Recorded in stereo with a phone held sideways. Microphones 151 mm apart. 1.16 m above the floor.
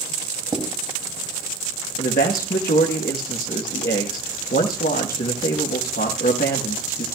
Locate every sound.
0.5 s writing: 30° right (ahead or behind), 2.5 m
2.0 s a man speaking: 85° left, 1.2 m